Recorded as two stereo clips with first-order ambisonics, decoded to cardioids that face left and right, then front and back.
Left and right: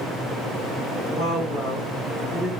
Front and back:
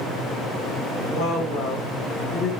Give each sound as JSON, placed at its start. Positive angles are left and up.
{"t": 1.1, "sound": "a woman speaking", "azimuth_deg": -15, "distance_m": 1.5}